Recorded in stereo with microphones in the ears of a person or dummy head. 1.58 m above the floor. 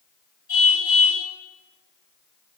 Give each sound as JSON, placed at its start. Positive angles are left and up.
{"t": 0.5, "sound": "a car horn", "side_deg": 50, "distance_m": 6.0}